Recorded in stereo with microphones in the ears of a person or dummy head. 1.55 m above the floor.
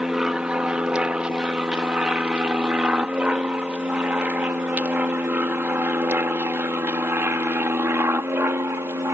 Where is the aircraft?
5° right (ahead or behind); by 9.1 s 15° right (ahead or behind).